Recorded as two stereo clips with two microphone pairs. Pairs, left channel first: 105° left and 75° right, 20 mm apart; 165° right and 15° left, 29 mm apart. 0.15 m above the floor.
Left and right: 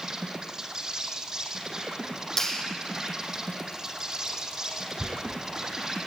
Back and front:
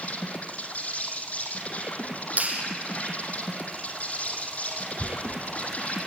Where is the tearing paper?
30° left, 2.5 m.